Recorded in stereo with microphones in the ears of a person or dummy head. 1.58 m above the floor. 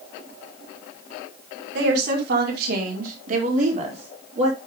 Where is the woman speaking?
70° right (ahead or behind), 2.0 m; by 4.6 s 40° right (ahead or behind), 3.5 m.